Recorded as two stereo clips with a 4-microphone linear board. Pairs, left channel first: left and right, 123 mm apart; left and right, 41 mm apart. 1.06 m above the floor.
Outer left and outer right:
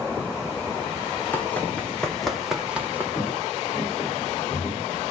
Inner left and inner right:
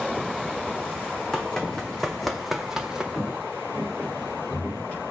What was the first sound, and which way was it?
Running footsteps, 15° left (ahead or behind).